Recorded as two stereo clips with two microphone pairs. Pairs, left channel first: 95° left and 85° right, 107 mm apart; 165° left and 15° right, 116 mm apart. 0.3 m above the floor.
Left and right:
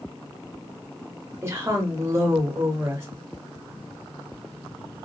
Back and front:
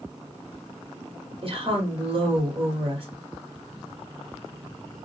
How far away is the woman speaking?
About 1.5 m.